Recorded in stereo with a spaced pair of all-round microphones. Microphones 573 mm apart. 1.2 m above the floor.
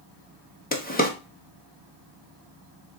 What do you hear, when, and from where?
0.7 s a drawer: 15° left (ahead or behind), 0.6 m